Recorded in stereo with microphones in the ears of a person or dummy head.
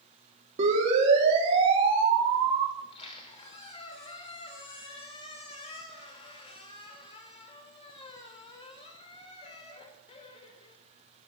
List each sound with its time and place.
0.6 s a siren: 40° right (ahead or behind), 5.5 m; by 2.7 s 25° right (ahead or behind), 6.5 m
2.8 s a squeak: 30° left (ahead or behind), 3 m